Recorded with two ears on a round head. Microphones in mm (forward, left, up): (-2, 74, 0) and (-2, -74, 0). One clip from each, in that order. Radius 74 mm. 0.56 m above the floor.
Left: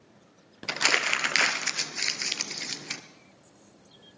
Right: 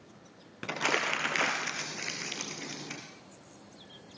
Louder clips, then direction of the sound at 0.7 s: Left 5 dB; 80° left.